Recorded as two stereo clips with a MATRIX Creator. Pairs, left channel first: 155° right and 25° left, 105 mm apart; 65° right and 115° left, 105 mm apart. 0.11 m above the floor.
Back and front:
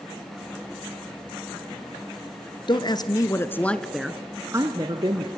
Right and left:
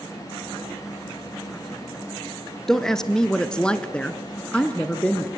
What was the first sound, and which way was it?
A woman speaking, 150° right.